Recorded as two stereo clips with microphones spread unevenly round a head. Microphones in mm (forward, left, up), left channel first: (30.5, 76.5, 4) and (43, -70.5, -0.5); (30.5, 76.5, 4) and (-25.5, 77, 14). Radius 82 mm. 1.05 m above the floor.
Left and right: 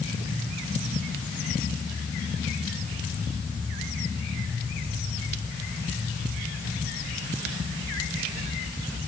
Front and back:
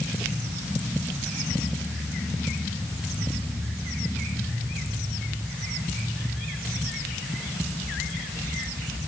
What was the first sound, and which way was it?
Only background noise.